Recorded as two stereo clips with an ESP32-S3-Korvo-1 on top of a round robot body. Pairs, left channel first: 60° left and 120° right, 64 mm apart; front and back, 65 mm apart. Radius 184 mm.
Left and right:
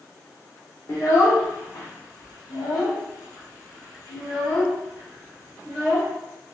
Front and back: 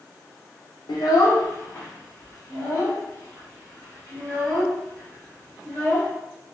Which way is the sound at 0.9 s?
5° left.